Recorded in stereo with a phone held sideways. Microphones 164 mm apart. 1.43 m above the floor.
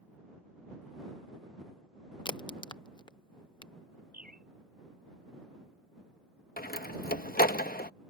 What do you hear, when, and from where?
2.2 s a crack: 30° left (ahead or behind)
4.1 s a bird: 60° right (ahead or behind)
6.6 s a door slam: 65° left (ahead or behind)